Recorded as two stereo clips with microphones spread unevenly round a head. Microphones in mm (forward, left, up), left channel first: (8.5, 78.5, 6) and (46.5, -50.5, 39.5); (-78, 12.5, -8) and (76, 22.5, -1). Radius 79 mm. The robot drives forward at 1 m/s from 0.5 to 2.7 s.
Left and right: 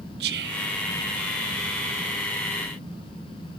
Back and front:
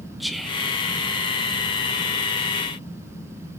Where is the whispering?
85° right, 0.9 m; by 0.7 s 100° right, 0.9 m.